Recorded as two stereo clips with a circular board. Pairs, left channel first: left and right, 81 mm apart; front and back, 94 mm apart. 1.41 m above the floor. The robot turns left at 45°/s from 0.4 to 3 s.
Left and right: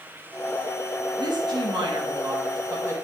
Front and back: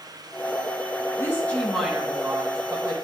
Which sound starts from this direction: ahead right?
A woman speaking, at 1.2 s.